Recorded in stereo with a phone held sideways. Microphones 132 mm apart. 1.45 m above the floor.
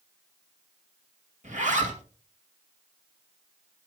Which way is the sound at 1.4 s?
70° right (ahead or behind).